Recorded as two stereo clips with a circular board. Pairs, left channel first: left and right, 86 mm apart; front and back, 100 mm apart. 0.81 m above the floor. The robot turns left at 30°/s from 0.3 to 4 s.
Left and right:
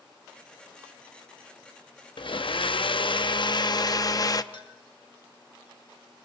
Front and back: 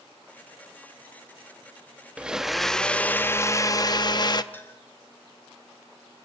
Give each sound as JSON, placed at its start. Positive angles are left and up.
{"t": 2.2, "sound": "a blender", "azimuth_deg": 100, "distance_m": 0.7}
{"t": 4.5, "sound": "a clink", "azimuth_deg": 70, "distance_m": 2.5}